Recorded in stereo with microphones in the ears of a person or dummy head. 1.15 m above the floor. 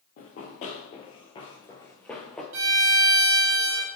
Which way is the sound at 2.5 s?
65° right (ahead or behind).